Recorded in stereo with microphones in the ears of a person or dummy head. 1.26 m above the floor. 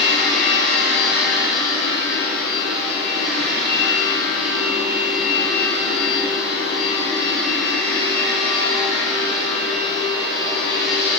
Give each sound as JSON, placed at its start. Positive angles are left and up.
{"t": 0.0, "sound": "a machine running", "side_deg": -70, "distance_m": 9.0}